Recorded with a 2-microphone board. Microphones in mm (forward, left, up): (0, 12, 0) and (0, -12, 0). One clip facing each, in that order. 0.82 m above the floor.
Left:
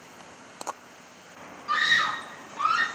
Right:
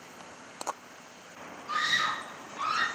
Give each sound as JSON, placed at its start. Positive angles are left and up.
{"t": 1.7, "sound": "a scream", "side_deg": 50, "distance_m": 1.0}